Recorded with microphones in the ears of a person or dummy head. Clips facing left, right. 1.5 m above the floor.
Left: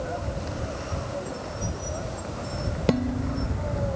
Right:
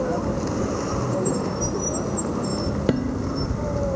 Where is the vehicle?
70° right (ahead or behind); by 4.0 s 65° right (ahead or behind).